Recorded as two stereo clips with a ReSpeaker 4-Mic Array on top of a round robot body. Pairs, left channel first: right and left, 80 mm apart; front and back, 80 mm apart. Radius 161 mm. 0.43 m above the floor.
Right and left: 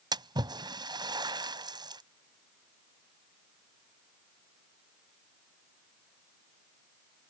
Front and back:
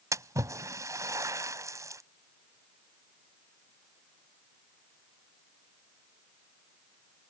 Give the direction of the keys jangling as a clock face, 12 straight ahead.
No keys jangling in this recording.